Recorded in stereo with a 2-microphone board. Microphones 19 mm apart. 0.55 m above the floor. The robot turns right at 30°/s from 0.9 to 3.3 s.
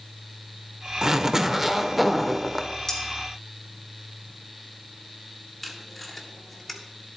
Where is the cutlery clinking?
30° left (ahead or behind), 3 m; by 3.0 s 25° left (ahead or behind), 3 m.